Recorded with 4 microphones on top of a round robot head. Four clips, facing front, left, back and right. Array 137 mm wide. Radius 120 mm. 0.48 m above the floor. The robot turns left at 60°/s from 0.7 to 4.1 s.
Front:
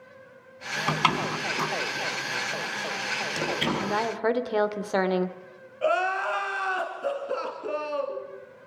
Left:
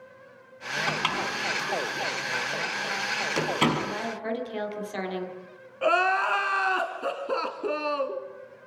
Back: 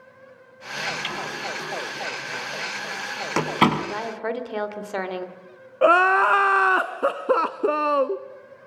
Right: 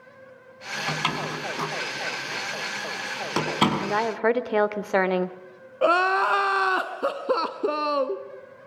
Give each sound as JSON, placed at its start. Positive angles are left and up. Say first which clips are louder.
{"t": 0.9, "sound": "a door slam", "louder": "right 2 dB, front 7 dB", "azimuth_deg": 0, "distance_m": 4.5}
{"t": 3.8, "sound": "a woman speaking", "louder": "right 8 dB, front 3 dB", "azimuth_deg": -55, "distance_m": 1.9}
{"t": 5.8, "sound": "crying", "louder": "right 3 dB, back 8 dB", "azimuth_deg": -160, "distance_m": 0.9}